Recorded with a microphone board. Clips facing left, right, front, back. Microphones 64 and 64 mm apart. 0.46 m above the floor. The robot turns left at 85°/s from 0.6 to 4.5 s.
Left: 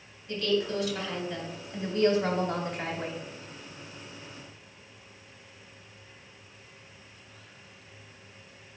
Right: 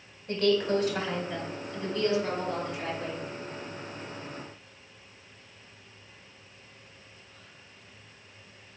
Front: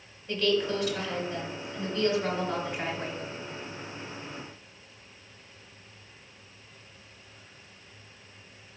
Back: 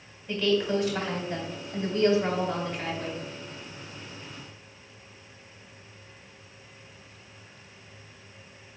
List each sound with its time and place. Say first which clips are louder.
0.3 s a woman speaking: right 3 dB, back 2 dB; 100° right, 2 m; by 3.2 s 35° left, 2 m